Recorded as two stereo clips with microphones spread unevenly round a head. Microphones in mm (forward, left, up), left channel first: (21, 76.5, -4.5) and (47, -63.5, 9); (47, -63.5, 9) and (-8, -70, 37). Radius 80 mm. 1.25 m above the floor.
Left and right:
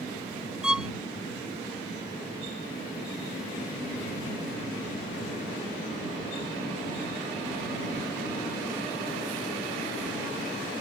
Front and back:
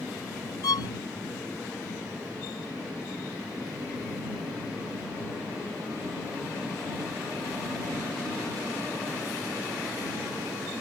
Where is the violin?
5° left.